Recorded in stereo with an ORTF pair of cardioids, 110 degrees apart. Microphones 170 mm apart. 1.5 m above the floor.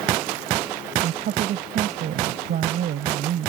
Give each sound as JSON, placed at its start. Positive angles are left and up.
{"t": 1.0, "sound": "a woman speaking", "azimuth_deg": -60}